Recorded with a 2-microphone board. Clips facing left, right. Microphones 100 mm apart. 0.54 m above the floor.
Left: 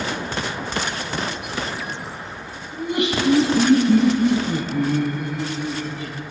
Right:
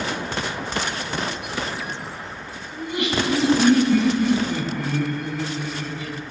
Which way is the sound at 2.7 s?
70° left (ahead or behind).